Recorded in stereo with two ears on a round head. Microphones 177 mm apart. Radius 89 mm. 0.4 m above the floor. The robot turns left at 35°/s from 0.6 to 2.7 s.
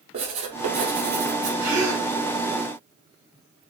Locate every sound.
0.1 s writing: 35° right, 1.1 m; by 1.5 s 65° right, 1.1 m
1.6 s a gasp: 15° right (ahead or behind), 2.0 m; by 2.1 s 30° right (ahead or behind), 2.0 m